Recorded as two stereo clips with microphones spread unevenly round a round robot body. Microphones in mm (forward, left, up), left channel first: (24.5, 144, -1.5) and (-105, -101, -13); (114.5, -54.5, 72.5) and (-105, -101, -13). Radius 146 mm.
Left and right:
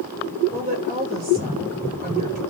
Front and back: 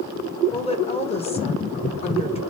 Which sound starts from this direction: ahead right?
A woman speaking, at 0.5 s.